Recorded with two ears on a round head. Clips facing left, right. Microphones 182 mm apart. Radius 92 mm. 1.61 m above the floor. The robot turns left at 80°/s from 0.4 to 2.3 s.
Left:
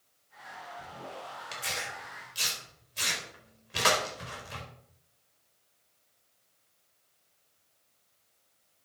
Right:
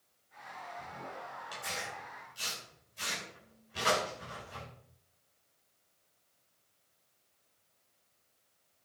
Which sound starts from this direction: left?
Tearing paper, at 1.5 s.